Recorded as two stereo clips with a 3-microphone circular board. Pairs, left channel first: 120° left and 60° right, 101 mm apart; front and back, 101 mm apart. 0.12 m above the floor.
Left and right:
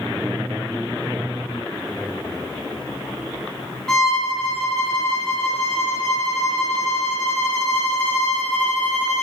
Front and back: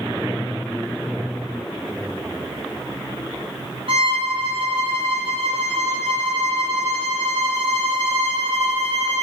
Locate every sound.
3.9 s a violin: 155° right, 6 m